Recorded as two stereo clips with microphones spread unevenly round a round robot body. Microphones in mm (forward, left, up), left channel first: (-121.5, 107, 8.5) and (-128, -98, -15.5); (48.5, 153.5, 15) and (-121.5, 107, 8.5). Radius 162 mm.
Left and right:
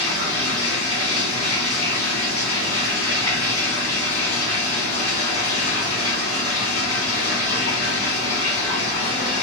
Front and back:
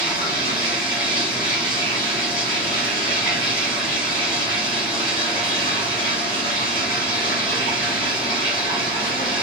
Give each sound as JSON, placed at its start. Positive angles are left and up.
{"t": 0.0, "sound": "running water", "azimuth_deg": 55, "distance_m": 1.8}